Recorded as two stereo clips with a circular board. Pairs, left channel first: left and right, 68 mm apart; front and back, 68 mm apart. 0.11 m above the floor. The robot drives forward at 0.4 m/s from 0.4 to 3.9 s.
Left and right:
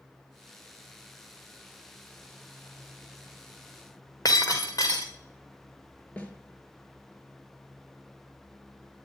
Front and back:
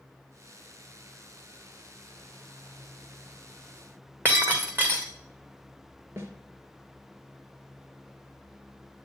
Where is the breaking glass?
125° left, 2 m.